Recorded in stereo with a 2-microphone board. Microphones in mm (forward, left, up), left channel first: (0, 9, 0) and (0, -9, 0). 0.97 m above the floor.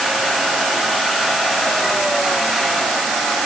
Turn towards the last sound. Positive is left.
No sound to turn to.